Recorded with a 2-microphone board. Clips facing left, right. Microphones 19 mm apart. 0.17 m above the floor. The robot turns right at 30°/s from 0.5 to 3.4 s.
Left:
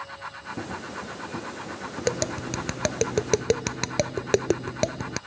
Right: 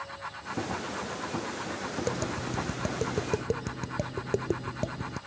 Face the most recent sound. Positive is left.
turn(degrees=75)  # may be behind; listen again after turning